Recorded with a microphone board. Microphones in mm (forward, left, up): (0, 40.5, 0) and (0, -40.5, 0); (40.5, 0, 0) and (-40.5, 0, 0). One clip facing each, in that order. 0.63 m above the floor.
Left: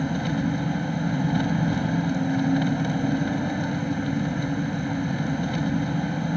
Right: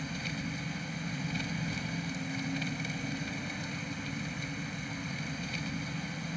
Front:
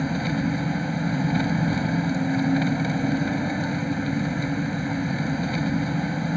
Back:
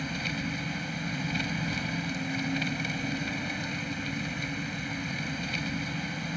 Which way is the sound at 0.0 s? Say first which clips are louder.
Left 13 dB, front 9 dB; 55° left.